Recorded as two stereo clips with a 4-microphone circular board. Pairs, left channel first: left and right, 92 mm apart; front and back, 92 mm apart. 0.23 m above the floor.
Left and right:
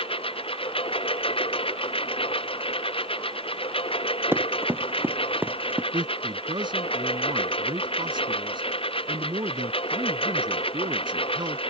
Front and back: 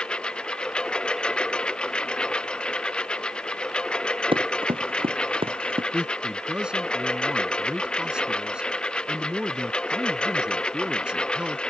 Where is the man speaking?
100° right.